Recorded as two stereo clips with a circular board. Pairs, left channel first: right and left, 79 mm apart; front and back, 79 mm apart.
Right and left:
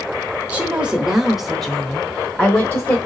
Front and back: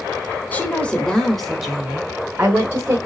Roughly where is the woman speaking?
Ahead left.